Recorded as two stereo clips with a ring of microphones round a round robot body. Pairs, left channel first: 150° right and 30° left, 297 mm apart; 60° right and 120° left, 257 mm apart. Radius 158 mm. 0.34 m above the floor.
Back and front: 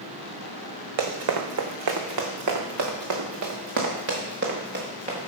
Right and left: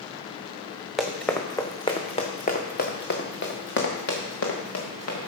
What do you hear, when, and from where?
1.0 s running footsteps: 30° left, 1.5 m; by 5.3 s 35° right, 2.5 m